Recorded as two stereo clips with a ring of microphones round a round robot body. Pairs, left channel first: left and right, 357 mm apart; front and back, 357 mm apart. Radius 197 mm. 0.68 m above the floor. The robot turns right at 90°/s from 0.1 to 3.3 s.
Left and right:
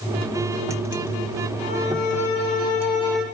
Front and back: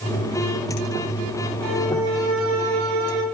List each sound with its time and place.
1.6 s a violin: 40° left, 3.5 m; by 3.2 s 175° right, 3.5 m